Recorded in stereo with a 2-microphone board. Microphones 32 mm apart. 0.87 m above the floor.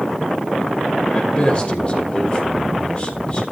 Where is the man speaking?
35° left (ahead or behind), 3.5 m.